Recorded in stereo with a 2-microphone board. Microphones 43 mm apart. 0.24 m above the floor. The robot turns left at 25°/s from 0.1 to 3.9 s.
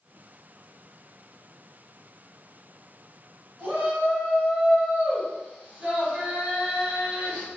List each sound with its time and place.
3.6 s a shout: 20° right (ahead or behind), 1.3 m; by 7.5 s 25° right (ahead or behind), 1.3 m